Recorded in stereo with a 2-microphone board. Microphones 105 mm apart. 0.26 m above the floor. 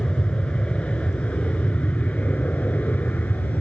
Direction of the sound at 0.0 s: 10° left (ahead or behind).